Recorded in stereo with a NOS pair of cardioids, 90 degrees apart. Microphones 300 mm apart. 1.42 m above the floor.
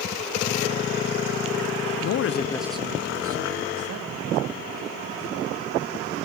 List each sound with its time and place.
2.0 s a man speaking: 65° left; by 6.2 s 70° right